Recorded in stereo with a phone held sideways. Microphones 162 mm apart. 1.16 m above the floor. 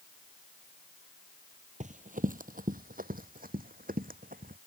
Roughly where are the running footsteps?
Right.